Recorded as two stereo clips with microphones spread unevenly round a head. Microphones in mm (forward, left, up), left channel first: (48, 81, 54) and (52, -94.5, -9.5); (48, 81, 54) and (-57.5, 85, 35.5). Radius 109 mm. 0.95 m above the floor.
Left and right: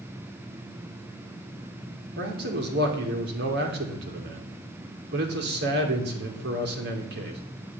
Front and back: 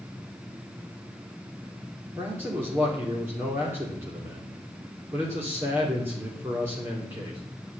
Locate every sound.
2.2 s a man speaking: 110° right, 3 m